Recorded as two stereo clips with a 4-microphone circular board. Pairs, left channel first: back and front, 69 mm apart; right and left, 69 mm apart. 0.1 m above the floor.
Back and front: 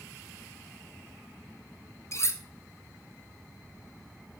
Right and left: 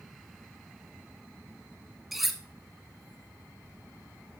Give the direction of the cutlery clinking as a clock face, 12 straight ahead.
6 o'clock.